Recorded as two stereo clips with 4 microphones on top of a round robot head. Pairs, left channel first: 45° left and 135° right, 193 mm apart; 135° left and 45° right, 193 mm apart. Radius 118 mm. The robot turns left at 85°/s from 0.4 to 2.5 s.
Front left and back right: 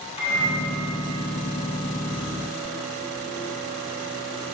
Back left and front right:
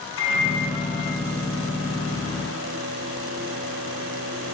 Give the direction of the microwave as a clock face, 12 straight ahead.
8 o'clock.